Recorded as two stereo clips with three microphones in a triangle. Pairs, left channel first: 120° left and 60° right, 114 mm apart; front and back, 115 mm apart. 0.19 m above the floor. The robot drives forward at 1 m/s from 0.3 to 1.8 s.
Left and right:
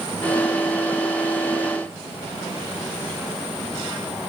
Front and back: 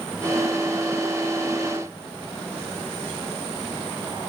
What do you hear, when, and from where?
Only background noise.